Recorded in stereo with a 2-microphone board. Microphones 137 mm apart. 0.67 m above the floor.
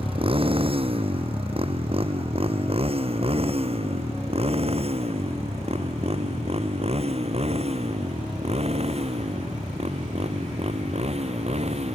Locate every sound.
0.0 s a motorcycle: 40° right (ahead or behind); by 12.0 s 50° right (ahead or behind)